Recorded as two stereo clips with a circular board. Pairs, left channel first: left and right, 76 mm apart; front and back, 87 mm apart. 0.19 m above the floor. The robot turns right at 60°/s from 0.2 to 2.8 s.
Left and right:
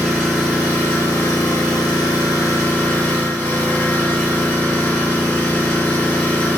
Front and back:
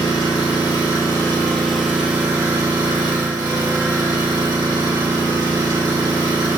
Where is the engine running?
5° right, 2 m; by 6.6 s 150° left, 2 m.